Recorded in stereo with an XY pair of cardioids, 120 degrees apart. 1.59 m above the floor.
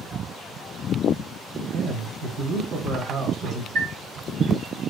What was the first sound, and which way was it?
A man speaking, 55° right.